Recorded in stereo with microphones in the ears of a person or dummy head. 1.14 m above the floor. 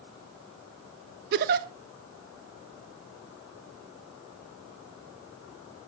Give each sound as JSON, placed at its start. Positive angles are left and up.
{"t": 1.3, "sound": "a giggle", "side_deg": -50, "distance_m": 0.9}